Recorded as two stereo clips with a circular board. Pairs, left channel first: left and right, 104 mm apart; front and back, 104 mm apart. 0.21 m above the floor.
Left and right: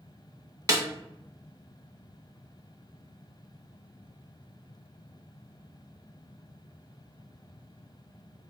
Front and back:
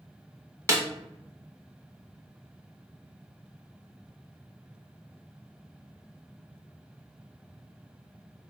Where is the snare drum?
135° right, 0.6 m.